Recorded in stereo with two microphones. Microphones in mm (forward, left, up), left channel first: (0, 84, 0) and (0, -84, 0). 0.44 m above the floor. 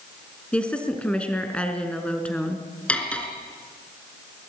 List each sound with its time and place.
0.5 s a woman speaking: 5° left (ahead or behind), 4 m
2.9 s cutlery clinking: 5° left (ahead or behind), 3.5 m